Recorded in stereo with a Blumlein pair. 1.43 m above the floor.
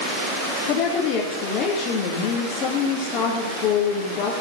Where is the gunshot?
I don't hear a gunshot.